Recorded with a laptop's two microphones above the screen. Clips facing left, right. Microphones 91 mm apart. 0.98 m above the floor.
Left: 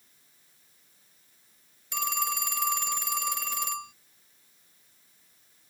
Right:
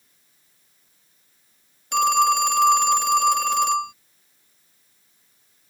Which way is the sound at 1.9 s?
85° right.